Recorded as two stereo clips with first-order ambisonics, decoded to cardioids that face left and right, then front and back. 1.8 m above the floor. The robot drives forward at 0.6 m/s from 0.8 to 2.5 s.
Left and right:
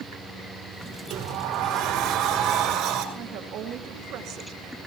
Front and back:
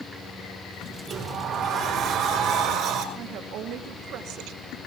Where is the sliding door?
120° right, 4 m; by 3.0 s 130° right, 4.5 m.